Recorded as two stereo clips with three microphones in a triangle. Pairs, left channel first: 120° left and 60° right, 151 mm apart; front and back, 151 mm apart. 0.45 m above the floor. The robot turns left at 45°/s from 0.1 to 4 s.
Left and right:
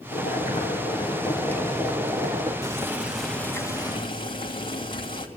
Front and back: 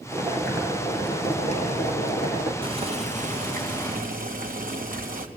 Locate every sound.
0.1 s boiling: 105° left, 5.5 m; by 2.5 s 5° right, 5.5 m
2.6 s boiling: 125° right, 2.5 m; by 5.3 s 175° left, 2.5 m